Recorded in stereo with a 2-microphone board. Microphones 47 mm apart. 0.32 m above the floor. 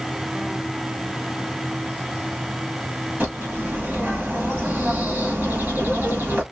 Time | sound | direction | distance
3.2 | a bird | 40° right (ahead or behind) | 3.5 m